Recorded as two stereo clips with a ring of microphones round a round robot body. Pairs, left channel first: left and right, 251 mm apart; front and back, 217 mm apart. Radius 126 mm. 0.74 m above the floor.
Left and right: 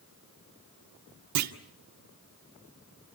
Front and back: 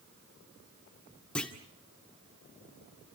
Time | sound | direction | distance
1.4 | a clunk | 85° right | 1.7 m